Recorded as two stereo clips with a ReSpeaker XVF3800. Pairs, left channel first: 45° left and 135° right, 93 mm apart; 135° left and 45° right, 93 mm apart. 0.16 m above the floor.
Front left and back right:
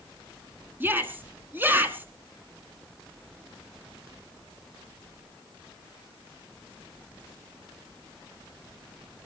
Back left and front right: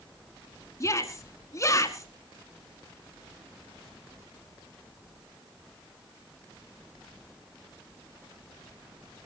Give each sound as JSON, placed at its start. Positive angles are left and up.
{"t": 0.8, "sound": "a shout", "azimuth_deg": 170, "distance_m": 1.5}